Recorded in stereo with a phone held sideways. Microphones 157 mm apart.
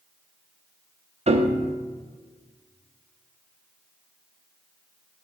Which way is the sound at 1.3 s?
45° right (ahead or behind).